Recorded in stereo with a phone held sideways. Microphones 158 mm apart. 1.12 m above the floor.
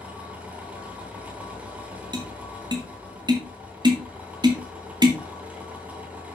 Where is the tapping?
25° right (ahead or behind), 2 m.